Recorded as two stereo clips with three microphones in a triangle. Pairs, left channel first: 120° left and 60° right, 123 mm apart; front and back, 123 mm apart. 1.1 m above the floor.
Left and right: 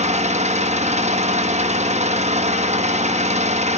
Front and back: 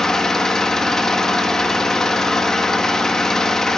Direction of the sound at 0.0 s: 85° right.